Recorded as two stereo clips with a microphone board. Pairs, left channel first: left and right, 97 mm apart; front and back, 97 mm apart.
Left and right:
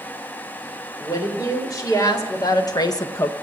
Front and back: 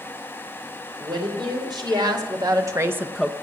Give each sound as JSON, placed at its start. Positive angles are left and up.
{"t": 1.0, "sound": "a woman speaking", "azimuth_deg": 145, "distance_m": 4.0}